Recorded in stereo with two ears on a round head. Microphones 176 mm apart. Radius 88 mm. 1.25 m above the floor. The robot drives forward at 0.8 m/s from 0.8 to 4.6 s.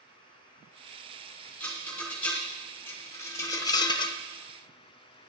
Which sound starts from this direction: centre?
A rattle, at 1.6 s.